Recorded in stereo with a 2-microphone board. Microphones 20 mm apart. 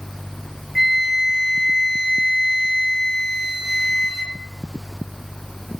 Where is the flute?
Centre (ahead or behind), 7 m.